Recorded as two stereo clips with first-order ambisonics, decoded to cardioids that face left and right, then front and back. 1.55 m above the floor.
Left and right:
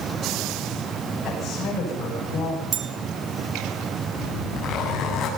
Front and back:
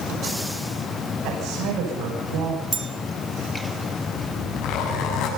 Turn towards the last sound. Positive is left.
turn(degrees=35)